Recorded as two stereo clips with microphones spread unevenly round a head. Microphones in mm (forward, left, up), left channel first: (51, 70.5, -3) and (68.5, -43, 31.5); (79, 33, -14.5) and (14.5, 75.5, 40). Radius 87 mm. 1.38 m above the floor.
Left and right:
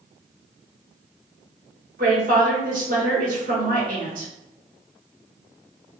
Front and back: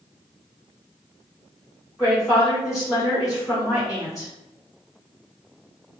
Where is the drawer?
I don't hear a drawer.